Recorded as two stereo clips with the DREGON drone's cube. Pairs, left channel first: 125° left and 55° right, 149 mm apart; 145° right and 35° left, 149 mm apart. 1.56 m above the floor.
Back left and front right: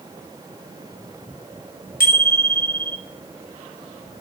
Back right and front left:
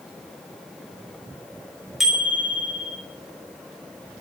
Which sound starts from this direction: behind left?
A bicycle bell, at 2.0 s.